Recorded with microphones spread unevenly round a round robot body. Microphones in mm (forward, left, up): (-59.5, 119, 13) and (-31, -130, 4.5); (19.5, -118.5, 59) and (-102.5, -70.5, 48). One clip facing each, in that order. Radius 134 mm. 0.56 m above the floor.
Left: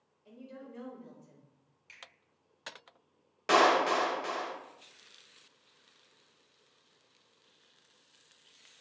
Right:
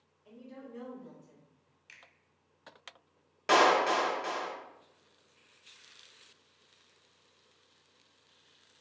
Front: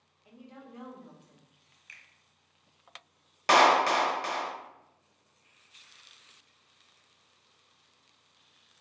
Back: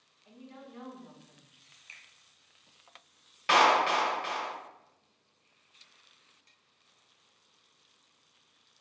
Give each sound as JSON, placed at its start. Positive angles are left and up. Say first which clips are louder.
{"t": 0.2, "sound": "a woman speaking", "louder": "even, even", "azimuth_deg": 35, "distance_m": 1.1}
{"t": 1.9, "sound": "a finger snap", "louder": "left 5 dB, even", "azimuth_deg": -150, "distance_m": 1.1}
{"t": 3.5, "sound": "a clap", "louder": "even, front 2 dB", "azimuth_deg": 5, "distance_m": 0.6}